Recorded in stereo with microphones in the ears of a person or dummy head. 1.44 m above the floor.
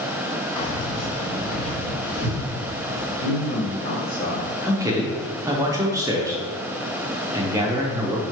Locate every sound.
0.6 s keys jangling: 30° left (ahead or behind), 0.7 m; by 3.1 s 45° left (ahead or behind), 2 m
3.2 s a man speaking: 40° left (ahead or behind), 1.0 m
4.6 s a man speaking: 20° right (ahead or behind), 0.7 m